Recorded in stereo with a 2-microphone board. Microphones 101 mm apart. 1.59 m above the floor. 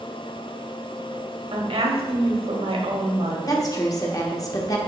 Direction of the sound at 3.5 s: 35° left (ahead or behind).